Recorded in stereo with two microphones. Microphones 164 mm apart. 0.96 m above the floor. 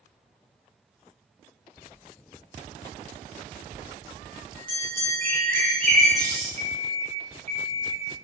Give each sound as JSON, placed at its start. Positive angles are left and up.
{"t": 3.7, "sound": "a bell", "side_deg": 10, "distance_m": 1.4}
{"t": 5.2, "sound": "a bird", "side_deg": 10, "distance_m": 0.7}
{"t": 6.6, "sound": "an alarm clock", "side_deg": -45, "distance_m": 0.6}